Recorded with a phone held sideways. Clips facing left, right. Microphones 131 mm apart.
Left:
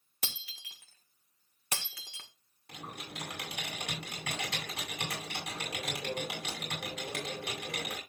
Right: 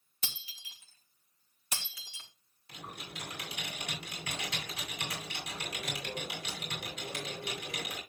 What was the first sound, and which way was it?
Breaking glass, 65° left (ahead or behind).